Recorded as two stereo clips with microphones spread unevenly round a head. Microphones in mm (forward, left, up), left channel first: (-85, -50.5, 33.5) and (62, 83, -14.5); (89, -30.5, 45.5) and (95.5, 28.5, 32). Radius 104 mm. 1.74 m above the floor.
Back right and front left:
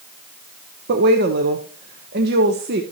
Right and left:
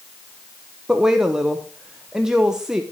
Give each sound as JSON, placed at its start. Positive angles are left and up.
{"t": 0.9, "sound": "a woman speaking", "azimuth_deg": -5, "distance_m": 0.7}